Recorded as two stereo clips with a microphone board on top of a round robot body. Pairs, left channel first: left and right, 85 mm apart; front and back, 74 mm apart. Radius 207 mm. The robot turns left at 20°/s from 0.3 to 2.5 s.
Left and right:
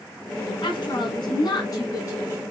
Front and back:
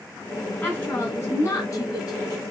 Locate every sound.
0.6 s a woman speaking: 65° left, 6 m; by 2.4 s 30° left, 6 m